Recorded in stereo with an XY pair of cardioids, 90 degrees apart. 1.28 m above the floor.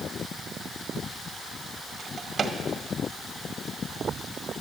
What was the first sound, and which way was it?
A drawer, 45° right.